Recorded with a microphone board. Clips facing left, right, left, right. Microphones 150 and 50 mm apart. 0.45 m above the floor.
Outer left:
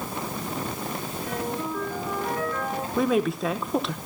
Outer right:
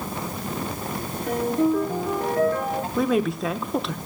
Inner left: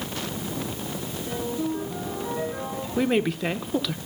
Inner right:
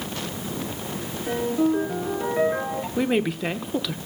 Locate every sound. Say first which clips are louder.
1.3 s a ringtone: outer right 10 dB, inner right 7 dB; 55° right (ahead or behind), 6 m
3.0 s a woman speaking: even, inner left 1 dB; centre (ahead or behind), 0.9 m